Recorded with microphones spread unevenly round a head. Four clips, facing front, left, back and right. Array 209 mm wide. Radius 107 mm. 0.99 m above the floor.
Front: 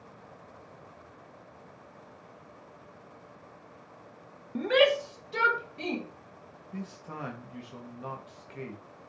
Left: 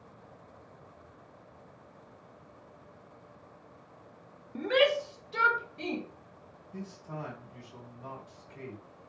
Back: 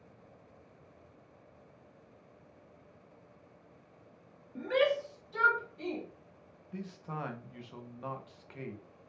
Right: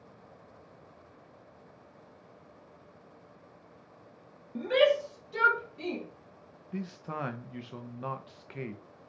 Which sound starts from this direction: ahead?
A shout, at 4.5 s.